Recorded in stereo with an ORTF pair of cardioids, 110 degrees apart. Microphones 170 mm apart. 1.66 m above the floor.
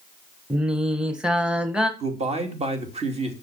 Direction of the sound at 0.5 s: 5° right.